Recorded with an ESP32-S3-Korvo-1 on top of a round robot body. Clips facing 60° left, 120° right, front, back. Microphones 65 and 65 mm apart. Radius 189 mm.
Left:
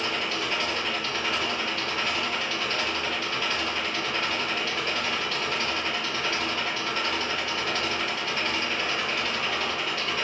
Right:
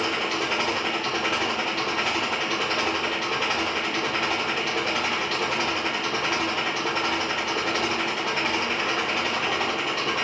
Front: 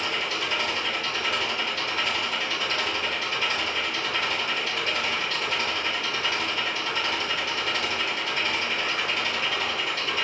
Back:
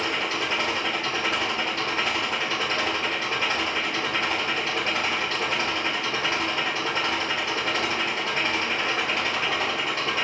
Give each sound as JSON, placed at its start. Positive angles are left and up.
{"t": 0.0, "sound": "an engine running", "azimuth_deg": -125, "distance_m": 1.2}